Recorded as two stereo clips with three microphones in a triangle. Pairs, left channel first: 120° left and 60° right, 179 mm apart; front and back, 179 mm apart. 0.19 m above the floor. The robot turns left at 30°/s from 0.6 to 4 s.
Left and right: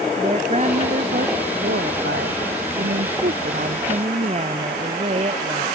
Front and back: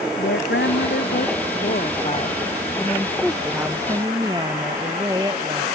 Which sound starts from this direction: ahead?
A woman speaking, at 0.2 s.